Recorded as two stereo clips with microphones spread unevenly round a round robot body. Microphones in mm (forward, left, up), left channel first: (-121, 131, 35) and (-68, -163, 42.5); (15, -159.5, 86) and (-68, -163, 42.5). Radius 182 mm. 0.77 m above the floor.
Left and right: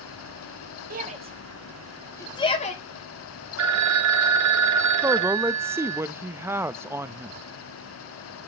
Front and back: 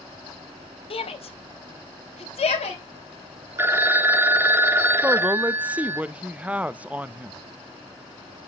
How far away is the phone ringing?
About 1.3 m.